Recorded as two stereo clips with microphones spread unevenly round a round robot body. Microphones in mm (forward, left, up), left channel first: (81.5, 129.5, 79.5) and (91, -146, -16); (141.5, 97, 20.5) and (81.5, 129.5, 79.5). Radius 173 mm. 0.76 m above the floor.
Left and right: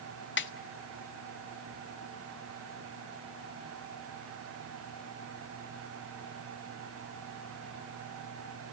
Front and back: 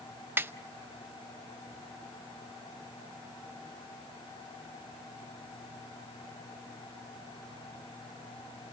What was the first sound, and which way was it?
A snare drum, 40° left.